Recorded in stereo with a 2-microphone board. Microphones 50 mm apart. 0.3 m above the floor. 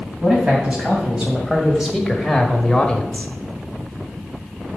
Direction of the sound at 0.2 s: 20° right (ahead or behind).